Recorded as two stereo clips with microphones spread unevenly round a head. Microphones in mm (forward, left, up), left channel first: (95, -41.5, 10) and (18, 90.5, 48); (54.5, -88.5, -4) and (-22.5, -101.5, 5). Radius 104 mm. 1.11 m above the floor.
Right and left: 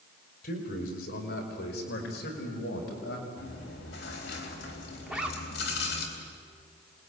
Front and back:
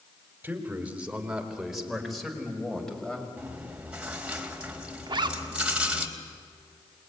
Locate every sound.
0.4 s a man speaking: 105° right, 4 m; by 3.3 s 70° right, 6.5 m
3.4 s chewing: 95° right, 3.5 m
5.1 s a zipper: 160° right, 1.3 m